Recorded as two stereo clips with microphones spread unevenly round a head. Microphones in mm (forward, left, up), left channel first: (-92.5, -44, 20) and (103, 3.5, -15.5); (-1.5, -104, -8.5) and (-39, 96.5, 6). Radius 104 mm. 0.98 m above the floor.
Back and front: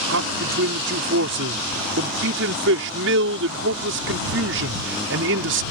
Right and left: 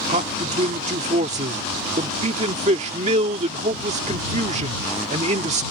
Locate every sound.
0.1 s a man speaking: 40° left